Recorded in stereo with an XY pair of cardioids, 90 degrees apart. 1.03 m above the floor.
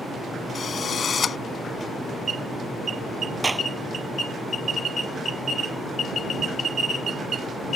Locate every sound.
0.6 s a drill: 50° left
3.4 s a clap: 20° right